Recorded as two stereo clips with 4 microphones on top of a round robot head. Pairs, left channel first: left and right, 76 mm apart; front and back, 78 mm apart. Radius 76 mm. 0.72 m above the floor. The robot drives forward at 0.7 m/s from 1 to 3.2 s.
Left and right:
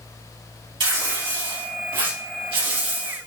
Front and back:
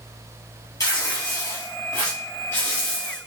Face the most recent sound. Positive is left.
turn(degrees=-80)